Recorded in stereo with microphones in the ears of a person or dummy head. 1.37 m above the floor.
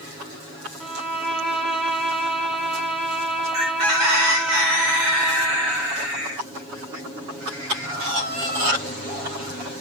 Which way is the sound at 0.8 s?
Centre (ahead or behind).